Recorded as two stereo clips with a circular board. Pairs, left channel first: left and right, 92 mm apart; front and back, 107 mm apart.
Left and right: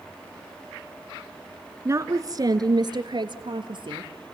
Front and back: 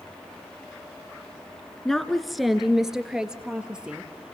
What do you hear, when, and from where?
1.9 s a woman speaking: 85° right, 1.3 m; by 4.3 s 100° right, 2.5 m